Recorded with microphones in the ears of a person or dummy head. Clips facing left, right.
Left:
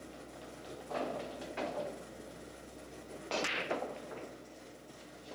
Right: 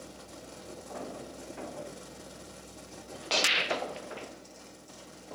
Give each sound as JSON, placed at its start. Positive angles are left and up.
{"t": 0.0, "sound": "a fan", "side_deg": -75, "distance_m": 4.0}